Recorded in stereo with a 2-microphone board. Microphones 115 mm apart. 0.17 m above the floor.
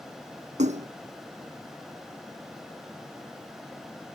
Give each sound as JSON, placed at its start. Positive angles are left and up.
{"t": 0.6, "sound": "a splash", "side_deg": -80}